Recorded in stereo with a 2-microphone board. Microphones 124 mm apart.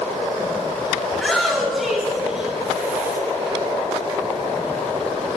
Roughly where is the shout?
Centre.